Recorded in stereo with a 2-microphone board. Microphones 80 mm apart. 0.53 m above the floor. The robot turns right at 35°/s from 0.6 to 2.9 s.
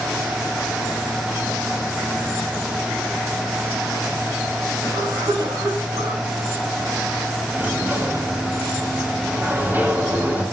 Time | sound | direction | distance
4.8 | a cough | 60° right (ahead or behind) | 5.5 m
7.5 | a sliding door | 25° right (ahead or behind) | 2.5 m